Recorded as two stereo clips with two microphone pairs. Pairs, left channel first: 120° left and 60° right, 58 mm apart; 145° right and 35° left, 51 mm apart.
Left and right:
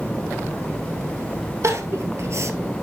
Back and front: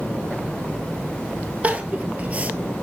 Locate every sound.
1.6 s crying: 25° right, 1.5 m